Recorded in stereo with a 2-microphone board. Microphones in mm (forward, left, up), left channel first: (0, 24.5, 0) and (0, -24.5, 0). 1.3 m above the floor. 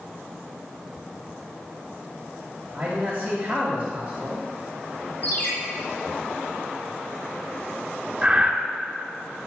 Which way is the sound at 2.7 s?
40° right (ahead or behind).